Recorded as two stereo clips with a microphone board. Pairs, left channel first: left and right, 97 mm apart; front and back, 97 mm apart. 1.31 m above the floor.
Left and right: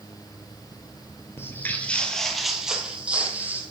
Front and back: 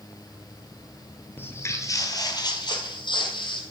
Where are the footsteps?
50° left, 1.5 m; by 3.6 s 20° right, 2.5 m.